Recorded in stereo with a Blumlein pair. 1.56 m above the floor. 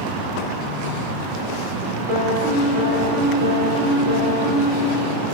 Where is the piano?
50° right, 0.8 m.